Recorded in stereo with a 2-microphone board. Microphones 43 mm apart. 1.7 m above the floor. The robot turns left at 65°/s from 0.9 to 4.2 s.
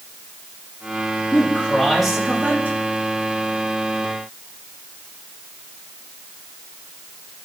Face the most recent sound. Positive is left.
turn(degrees=-140)